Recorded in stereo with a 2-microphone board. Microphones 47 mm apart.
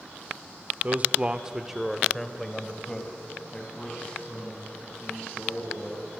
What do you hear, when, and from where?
0.8 s a man speaking: 35° right (ahead or behind), 1.3 m; by 6.1 s 25° left (ahead or behind), 7 m